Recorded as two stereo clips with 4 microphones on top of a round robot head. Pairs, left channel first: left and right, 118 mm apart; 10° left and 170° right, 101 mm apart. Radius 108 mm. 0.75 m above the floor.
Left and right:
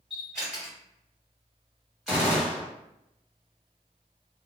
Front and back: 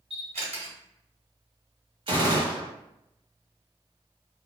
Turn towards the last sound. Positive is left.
turn(degrees=-175)